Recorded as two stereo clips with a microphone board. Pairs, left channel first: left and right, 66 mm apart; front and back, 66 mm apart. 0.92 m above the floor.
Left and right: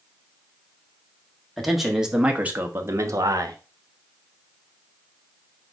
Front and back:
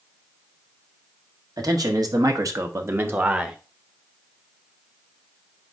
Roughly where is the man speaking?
Behind.